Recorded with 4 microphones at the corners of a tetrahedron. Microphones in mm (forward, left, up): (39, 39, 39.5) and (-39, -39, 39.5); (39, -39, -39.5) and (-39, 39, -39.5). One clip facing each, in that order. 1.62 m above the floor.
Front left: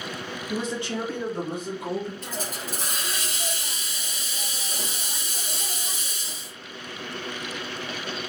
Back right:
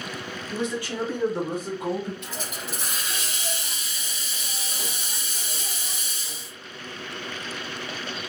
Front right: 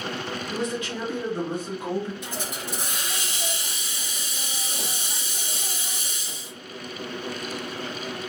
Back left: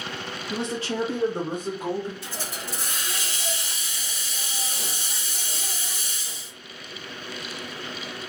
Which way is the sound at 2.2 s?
20° left.